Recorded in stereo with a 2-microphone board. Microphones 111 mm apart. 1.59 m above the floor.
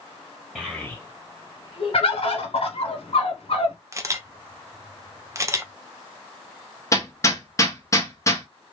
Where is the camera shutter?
25° right (ahead or behind), 0.6 m.